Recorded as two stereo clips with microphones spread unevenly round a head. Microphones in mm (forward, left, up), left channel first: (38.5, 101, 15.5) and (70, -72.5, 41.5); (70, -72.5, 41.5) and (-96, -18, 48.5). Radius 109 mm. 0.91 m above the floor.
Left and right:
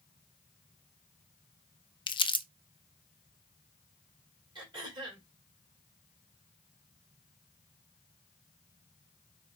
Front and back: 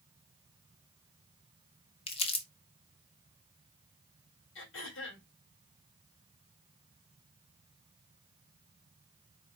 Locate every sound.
2.1 s crumpling: 40° left, 0.6 m
4.5 s throat clearing: 15° right, 2.5 m